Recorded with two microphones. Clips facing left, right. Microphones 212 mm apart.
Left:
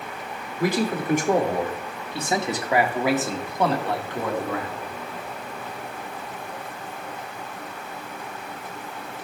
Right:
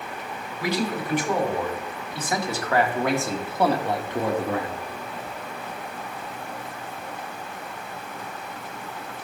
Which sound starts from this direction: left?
A man speaking, at 0.6 s.